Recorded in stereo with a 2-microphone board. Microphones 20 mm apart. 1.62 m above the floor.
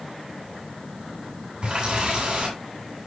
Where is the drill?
No drill in this recording.